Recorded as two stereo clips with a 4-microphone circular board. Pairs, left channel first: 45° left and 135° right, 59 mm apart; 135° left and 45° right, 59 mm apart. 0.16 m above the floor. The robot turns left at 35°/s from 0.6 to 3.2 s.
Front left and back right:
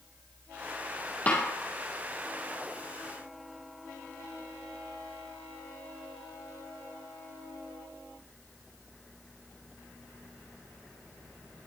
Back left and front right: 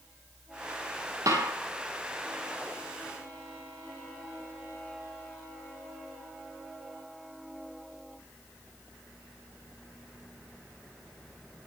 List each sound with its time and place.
1.3 s a snare drum: 15° right, 3.5 m; by 1.5 s 25° right, 3.5 m